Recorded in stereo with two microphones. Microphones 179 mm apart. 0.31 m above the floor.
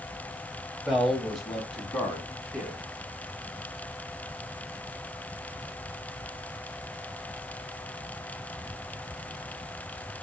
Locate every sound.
0.8 s a man speaking: centre (ahead or behind), 1.4 m